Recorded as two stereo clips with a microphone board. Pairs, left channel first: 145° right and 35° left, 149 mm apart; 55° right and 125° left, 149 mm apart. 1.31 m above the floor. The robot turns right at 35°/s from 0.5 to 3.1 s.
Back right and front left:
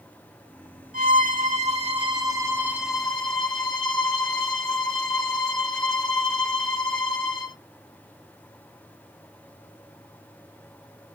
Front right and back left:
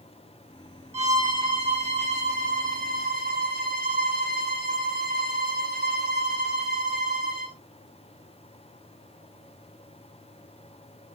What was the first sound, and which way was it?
A violin, 55° left.